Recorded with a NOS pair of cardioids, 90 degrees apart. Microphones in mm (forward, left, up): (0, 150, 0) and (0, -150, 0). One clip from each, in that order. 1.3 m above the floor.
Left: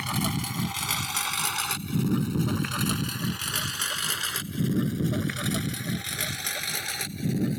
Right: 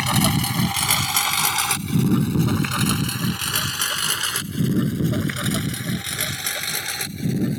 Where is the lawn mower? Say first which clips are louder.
Right 9 dB; 50° right; by 7.6 s 25° right.